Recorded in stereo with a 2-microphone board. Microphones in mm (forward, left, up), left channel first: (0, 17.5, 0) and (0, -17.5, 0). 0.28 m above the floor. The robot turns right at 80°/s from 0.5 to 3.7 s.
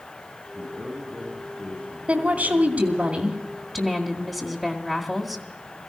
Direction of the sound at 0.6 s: 45° right.